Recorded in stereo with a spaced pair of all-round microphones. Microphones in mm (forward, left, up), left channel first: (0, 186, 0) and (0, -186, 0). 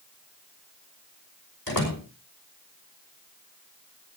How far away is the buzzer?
No buzzer in this recording.